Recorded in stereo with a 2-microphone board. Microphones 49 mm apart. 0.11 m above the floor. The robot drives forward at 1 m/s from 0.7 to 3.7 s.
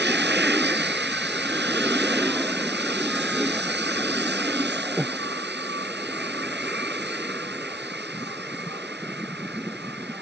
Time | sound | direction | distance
5.0 | breathing | 5° right (ahead or behind) | ?